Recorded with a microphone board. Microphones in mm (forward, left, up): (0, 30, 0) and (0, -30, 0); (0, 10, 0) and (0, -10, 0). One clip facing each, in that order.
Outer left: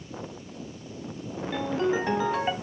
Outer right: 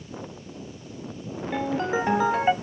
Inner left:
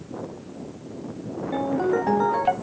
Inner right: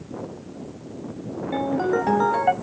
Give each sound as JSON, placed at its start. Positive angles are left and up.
{"t": 1.5, "sound": "a ringtone", "side_deg": -20, "distance_m": 1.3}